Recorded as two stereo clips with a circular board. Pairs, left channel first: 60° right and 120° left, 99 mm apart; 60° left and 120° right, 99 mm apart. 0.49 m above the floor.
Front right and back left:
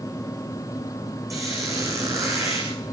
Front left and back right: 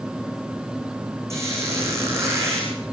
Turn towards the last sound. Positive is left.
turn(degrees=180)